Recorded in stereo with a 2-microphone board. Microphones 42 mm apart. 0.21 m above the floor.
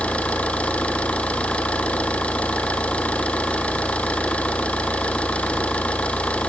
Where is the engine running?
30° left (ahead or behind), 1.9 m.